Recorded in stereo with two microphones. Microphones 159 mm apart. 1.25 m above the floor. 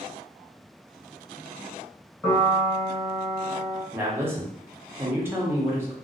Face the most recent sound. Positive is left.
turn(degrees=-15)  # may be behind; listen again after turning